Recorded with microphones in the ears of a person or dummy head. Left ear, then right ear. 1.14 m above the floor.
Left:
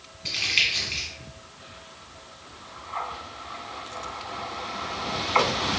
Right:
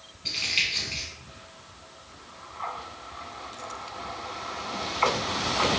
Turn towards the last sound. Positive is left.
turn(degrees=0)  # may be behind; listen again after turning